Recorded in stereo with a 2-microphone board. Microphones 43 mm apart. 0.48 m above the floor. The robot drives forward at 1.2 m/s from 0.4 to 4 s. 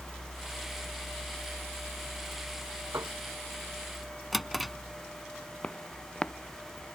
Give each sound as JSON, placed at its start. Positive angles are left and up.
{"t": 2.9, "sound": "a piano", "side_deg": -80}
{"t": 4.3, "sound": "a drawer", "side_deg": 0}
{"t": 5.6, "sound": "footsteps", "side_deg": 25}